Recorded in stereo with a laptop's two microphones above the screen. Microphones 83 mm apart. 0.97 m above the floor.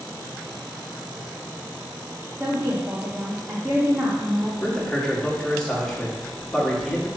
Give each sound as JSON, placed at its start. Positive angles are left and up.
{"t": 2.4, "sound": "a woman speaking", "side_deg": -20, "distance_m": 1.4}
{"t": 4.6, "sound": "a man speaking", "side_deg": 10, "distance_m": 2.0}